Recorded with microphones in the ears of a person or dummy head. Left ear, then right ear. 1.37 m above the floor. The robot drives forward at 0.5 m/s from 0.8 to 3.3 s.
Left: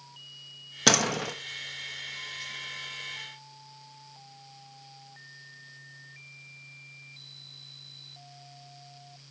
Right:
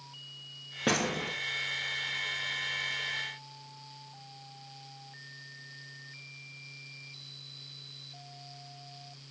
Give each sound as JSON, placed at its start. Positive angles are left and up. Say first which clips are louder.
{"t": 0.9, "sound": "a door slam", "louder": "left 7 dB", "side_deg": 80, "distance_m": 1.5}